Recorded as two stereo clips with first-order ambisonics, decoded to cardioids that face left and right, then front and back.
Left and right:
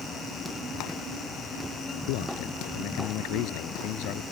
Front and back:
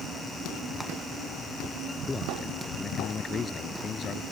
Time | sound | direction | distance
2.1 | a man speaking | 75° left | ?